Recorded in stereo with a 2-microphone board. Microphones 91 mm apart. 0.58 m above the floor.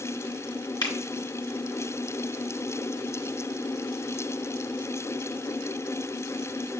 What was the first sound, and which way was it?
A finger snap, 55° left (ahead or behind).